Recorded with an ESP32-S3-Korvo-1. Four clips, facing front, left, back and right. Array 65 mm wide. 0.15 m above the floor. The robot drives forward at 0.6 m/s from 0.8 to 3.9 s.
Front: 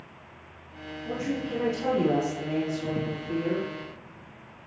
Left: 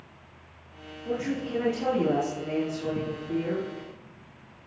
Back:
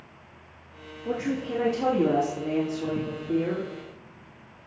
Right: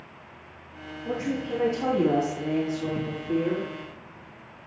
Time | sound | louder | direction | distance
1.1 | a woman speaking | right 1 dB, back 2 dB | 165° right | 7 m